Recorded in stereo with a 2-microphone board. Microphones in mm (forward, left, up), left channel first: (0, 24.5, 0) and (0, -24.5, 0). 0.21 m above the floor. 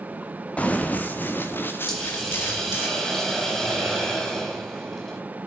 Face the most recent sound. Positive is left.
turn(degrees=10)  # may be behind; listen again after turning